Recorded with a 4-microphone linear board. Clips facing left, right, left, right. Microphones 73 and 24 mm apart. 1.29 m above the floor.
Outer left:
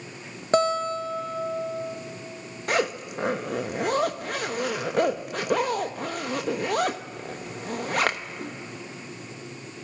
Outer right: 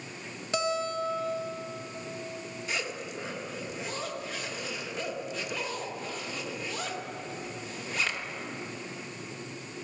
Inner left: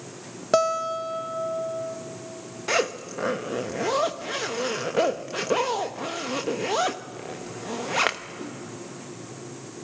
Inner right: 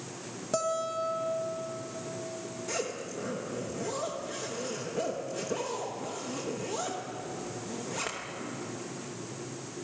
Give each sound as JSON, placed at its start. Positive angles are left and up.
{"t": 0.5, "sound": "a guitar", "side_deg": 45, "distance_m": 1.7}
{"t": 2.7, "sound": "a zipper", "side_deg": 60, "distance_m": 0.9}